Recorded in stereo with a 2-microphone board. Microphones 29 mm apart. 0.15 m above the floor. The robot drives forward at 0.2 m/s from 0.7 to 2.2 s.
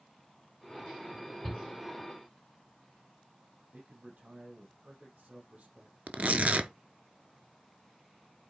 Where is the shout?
15° left (ahead or behind), 3 m.